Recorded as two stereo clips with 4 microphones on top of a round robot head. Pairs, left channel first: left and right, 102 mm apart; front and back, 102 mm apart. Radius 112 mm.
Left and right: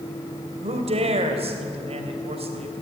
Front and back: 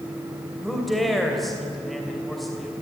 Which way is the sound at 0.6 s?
90° right.